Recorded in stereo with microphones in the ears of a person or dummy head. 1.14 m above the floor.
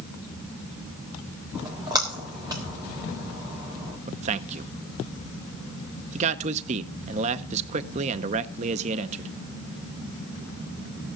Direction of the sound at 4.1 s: 35° right (ahead or behind).